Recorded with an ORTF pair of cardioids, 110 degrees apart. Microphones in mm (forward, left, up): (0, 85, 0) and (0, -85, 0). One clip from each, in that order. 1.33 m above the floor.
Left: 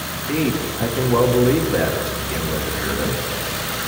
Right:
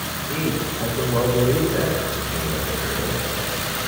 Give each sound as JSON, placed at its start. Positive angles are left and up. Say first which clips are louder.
{"t": 0.3, "sound": "a man speaking", "louder": "left 4 dB", "azimuth_deg": 45, "distance_m": 3.0}